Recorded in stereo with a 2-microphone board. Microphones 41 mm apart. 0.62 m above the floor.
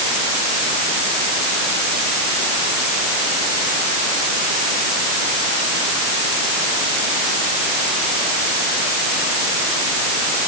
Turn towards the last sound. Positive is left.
No sound to turn to.